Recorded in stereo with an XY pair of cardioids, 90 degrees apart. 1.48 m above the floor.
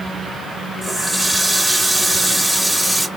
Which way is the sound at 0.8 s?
Straight ahead.